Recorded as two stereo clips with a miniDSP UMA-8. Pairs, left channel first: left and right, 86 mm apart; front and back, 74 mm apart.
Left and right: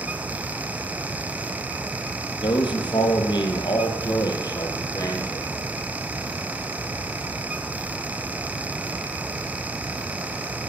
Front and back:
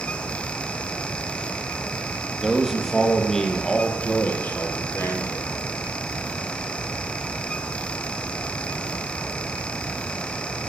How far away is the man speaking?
About 3 m.